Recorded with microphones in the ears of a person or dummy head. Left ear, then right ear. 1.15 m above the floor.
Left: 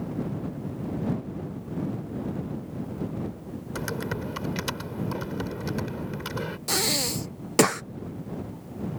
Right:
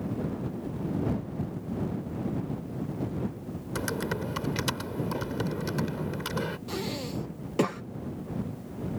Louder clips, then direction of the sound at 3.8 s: Right 1 dB; centre (ahead or behind).